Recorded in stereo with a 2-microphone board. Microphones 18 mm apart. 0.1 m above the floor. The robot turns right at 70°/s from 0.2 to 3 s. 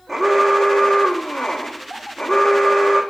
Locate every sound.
0.1 s an alarm: 10° left, 4 m; by 3.0 s 150° right, 4 m